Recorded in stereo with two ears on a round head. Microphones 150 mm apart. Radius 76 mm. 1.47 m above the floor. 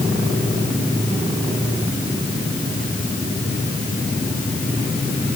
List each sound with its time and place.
Only background noise.